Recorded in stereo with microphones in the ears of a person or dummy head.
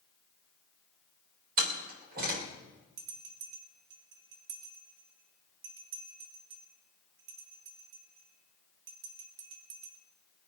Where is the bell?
65° right (ahead or behind), 2.5 m.